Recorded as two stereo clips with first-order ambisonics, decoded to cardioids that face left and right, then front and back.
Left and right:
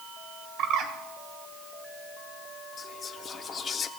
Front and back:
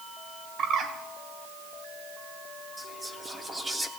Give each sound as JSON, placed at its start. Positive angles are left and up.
{"t": 0.6, "sound": "a bird", "azimuth_deg": -130, "distance_m": 1.6}
{"t": 2.8, "sound": "whispering", "azimuth_deg": 110, "distance_m": 0.7}